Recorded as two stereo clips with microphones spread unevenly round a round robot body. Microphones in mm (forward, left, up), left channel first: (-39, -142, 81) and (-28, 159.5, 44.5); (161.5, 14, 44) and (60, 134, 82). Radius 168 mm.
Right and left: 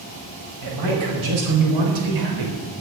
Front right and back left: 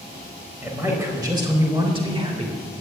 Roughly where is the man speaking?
Ahead left.